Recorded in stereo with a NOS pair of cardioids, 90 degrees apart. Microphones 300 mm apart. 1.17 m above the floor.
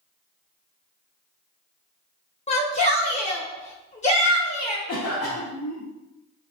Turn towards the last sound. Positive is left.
turn(degrees=55)